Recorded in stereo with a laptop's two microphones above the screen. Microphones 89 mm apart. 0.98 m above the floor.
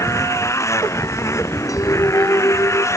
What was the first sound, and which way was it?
A motorcycle, 35° left (ahead or behind).